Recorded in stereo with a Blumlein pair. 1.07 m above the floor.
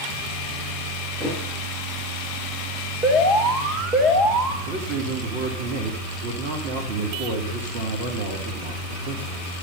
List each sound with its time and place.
1.2 s a thud: 10° right, 7.5 m
3.0 s an alarm: 25° right, 2.5 m
4.7 s a man speaking: 40° right, 3 m